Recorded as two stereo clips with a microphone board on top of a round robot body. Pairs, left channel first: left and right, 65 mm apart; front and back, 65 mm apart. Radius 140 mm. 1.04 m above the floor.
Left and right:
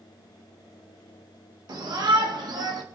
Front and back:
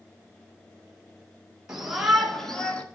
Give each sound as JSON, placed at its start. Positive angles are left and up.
{"t": 1.7, "sound": "a shout", "azimuth_deg": -100, "distance_m": 2.5}